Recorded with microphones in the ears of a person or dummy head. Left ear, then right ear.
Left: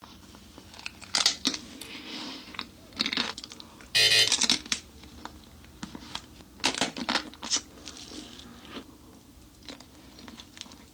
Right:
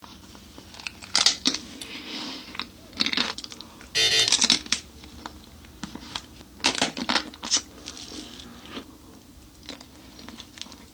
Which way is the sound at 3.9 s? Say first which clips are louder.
Even; 40° left (ahead or behind).